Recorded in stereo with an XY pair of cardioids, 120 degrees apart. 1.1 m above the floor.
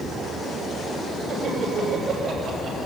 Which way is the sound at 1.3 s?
50° right.